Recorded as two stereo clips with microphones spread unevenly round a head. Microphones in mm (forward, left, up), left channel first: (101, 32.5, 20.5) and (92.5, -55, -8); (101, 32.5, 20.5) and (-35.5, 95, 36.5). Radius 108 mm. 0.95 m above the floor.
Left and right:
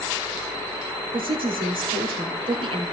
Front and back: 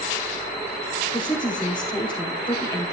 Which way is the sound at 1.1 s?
105° right.